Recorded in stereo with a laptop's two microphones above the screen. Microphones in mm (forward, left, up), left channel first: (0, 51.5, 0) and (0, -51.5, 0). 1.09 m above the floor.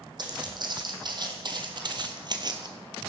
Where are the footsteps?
45° right (ahead or behind), 3 m.